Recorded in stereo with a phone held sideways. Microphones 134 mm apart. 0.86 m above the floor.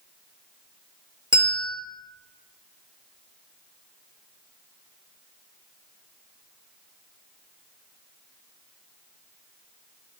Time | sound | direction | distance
1.3 | a bell | 35° right (ahead or behind) | 1.4 m